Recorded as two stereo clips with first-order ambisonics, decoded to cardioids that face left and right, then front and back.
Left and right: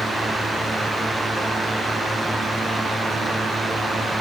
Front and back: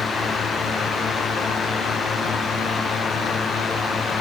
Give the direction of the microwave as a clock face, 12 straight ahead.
No microwave in this recording.